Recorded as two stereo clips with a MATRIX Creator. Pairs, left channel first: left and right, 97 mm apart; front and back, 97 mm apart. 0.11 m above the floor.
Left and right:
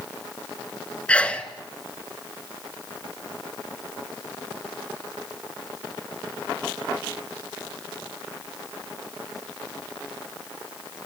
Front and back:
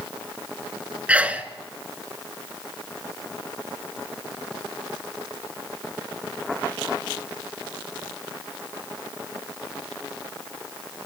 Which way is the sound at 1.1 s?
135° left.